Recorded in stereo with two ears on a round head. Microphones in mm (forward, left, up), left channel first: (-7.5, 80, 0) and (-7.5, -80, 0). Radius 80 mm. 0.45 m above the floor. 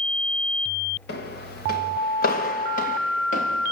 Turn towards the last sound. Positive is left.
turn(degrees=40)  # may be behind; listen again after turning